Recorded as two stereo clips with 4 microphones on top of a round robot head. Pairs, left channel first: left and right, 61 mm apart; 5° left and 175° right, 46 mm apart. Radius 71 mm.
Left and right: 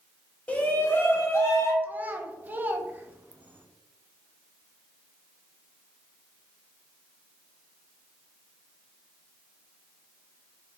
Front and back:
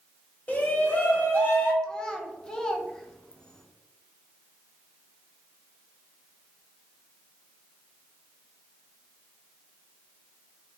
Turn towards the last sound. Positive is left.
turn(degrees=-50)